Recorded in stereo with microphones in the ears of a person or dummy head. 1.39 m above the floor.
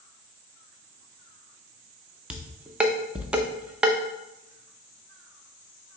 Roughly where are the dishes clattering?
Centre.